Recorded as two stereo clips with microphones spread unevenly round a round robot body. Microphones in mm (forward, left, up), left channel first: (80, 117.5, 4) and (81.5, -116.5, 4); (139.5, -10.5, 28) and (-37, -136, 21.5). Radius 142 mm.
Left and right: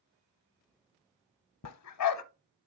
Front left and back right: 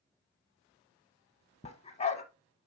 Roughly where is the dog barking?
Left.